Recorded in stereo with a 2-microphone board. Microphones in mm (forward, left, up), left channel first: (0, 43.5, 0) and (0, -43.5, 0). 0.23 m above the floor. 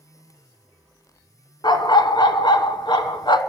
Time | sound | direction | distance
1.6 | a dog barking | 60° left (ahead or behind) | 1.1 m